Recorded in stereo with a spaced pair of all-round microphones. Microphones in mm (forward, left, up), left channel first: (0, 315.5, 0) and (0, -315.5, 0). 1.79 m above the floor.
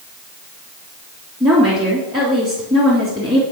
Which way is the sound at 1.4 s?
5° right (ahead or behind).